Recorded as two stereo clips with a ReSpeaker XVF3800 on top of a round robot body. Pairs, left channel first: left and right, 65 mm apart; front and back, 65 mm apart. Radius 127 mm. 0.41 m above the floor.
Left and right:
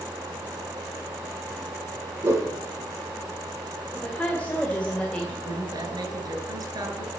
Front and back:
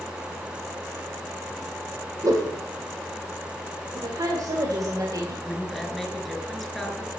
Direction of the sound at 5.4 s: 90° right.